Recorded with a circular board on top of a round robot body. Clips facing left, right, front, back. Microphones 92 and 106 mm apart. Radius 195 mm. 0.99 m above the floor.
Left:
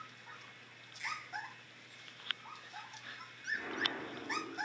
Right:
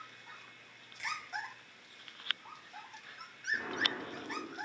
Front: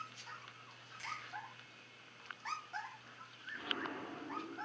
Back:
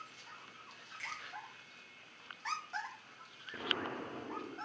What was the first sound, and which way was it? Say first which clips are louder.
A finger snap: right 2 dB, front 1 dB; 65° right.